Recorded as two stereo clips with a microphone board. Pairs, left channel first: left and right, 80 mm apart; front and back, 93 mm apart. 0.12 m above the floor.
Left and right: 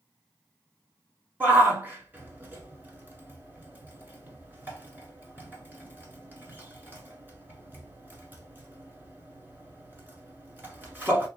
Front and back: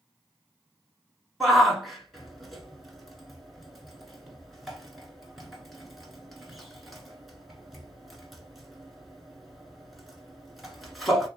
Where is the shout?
90° right, 1.1 m.